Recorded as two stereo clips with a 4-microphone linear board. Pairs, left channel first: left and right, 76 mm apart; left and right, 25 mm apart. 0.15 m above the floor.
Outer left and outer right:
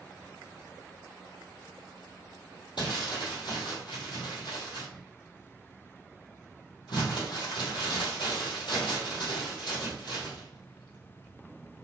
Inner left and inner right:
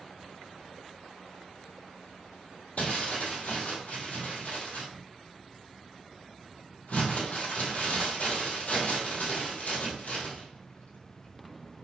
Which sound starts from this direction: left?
Crumpling, at 2.8 s.